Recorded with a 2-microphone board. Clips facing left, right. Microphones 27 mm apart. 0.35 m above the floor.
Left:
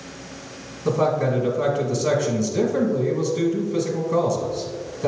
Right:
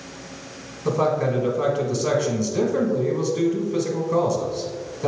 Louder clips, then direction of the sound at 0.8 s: Left 1 dB; 15° right (ahead or behind).